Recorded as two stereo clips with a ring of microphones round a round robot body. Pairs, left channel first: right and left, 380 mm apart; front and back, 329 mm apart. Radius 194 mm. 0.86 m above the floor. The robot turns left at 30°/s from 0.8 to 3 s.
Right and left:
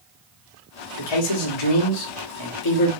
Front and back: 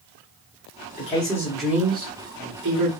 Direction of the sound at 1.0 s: 70° right.